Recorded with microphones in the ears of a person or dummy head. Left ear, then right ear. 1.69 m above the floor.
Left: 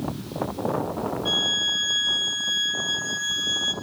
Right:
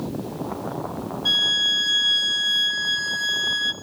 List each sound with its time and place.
1.2 s a violin: 45° right (ahead or behind), 1.3 m